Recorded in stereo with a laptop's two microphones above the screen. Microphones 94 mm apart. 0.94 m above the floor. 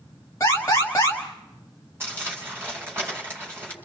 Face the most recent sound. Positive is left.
turn(degrees=-25)  # may be behind; listen again after turning